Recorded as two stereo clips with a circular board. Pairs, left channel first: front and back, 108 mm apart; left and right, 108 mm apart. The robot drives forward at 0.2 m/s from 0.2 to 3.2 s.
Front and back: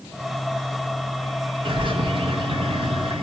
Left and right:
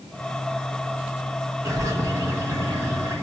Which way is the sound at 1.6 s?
150° right.